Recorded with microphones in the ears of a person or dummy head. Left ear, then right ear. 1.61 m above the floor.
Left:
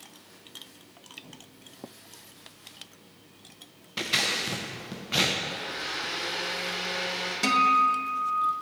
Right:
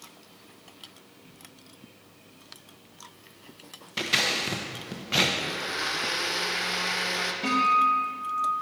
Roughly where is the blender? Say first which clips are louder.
Right 3 dB; right.